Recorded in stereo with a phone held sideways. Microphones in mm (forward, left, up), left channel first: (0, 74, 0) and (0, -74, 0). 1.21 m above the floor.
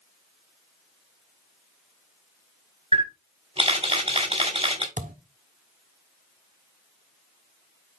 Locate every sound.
2.9 s a camera shutter: 45° right (ahead or behind), 3 m
5.0 s a thud: 65° right (ahead or behind), 1.4 m